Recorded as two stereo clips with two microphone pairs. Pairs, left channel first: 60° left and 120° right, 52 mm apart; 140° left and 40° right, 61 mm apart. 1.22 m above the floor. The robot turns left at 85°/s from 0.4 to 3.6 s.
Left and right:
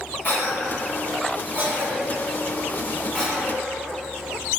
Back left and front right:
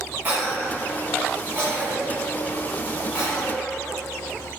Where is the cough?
20° left, 1.3 m; by 4.6 s 105° left, 1.3 m.